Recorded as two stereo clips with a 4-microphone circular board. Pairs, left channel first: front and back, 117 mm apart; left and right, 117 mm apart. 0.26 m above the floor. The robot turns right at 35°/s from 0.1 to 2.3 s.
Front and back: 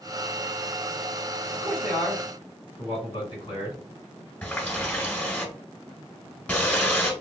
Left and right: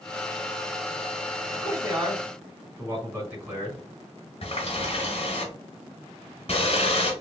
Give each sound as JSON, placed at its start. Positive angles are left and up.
{"t": 1.5, "sound": "a man speaking", "azimuth_deg": -50, "distance_m": 2.5}
{"t": 4.4, "sound": "a running tap", "azimuth_deg": 75, "distance_m": 1.3}